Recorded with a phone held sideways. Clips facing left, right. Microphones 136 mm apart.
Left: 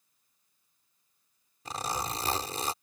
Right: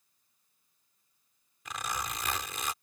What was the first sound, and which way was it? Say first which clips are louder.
A zipper: left 3 dB; 35° left (ahead or behind).